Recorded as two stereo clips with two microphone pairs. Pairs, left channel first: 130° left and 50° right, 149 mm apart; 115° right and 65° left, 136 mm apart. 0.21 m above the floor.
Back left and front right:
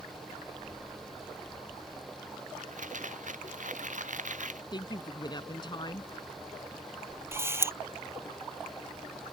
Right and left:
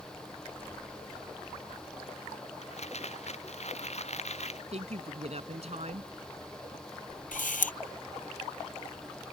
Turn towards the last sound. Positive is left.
turn(degrees=-120)